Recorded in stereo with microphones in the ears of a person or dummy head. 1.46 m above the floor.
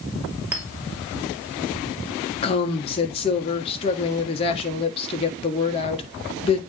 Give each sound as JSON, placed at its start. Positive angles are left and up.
{"t": 0.5, "sound": "a clink", "side_deg": -10, "distance_m": 2.5}
{"t": 2.4, "sound": "a woman speaking", "side_deg": 30, "distance_m": 1.3}